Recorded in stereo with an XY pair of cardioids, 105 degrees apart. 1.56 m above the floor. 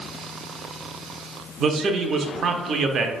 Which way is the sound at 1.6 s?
55° right.